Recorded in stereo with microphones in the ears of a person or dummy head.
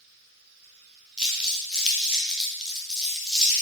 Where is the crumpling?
Centre (ahead or behind), 1.1 m.